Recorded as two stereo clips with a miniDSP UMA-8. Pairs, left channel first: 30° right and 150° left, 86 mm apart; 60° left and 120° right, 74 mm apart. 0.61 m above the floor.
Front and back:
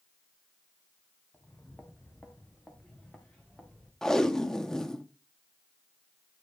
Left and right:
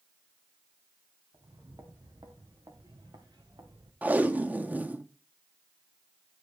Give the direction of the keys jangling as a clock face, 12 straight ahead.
No keys jangling in this recording.